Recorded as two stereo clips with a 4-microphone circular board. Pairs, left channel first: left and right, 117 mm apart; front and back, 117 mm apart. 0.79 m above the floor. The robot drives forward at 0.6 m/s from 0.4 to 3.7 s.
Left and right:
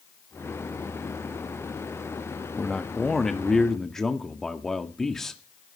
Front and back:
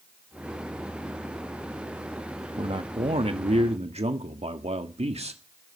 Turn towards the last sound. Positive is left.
turn(degrees=175)